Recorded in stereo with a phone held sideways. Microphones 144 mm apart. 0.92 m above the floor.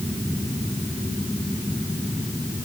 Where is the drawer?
No drawer in this recording.